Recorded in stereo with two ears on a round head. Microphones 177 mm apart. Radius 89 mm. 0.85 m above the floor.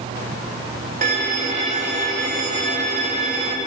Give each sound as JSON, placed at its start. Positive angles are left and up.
{"t": 1.0, "sound": "a violin", "side_deg": -40, "distance_m": 2.0}